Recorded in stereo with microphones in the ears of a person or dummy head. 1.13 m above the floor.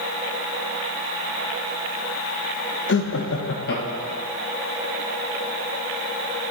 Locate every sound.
2.9 s laughter: 60° left (ahead or behind), 0.8 m; by 4.2 s 50° left (ahead or behind), 1.5 m